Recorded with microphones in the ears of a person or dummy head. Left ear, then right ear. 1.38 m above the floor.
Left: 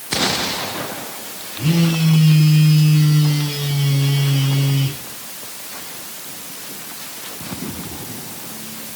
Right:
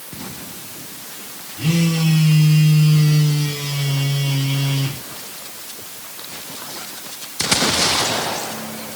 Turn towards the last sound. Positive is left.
turn(degrees=-45)  # may be behind; listen again after turning